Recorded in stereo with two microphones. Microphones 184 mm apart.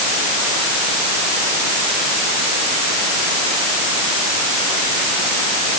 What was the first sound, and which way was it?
Only background noise.